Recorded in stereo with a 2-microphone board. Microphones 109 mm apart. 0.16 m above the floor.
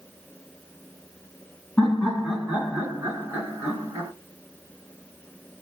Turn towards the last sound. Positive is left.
turn(degrees=-35)  # may be behind; listen again after turning